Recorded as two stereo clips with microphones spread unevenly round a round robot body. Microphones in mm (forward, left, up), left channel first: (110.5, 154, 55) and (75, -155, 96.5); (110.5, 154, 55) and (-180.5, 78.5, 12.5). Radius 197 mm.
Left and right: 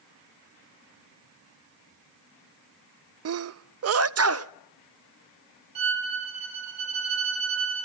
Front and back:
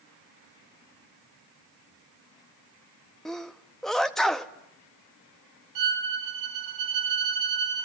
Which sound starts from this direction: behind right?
A violin, at 5.8 s.